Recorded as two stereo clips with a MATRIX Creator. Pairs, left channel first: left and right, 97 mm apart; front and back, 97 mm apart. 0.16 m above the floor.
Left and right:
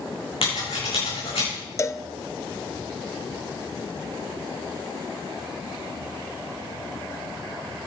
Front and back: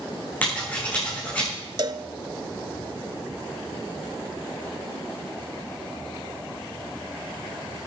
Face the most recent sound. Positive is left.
turn(degrees=145)